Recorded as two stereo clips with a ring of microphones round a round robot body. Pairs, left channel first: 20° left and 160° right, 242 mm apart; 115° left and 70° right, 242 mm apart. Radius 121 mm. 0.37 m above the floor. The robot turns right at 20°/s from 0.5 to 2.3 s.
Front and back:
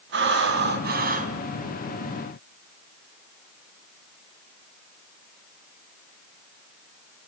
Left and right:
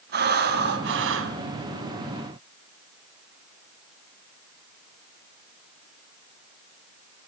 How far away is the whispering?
No whispering in this recording.